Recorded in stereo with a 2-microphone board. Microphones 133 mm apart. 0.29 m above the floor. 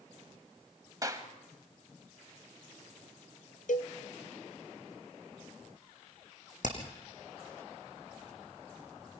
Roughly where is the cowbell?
Left.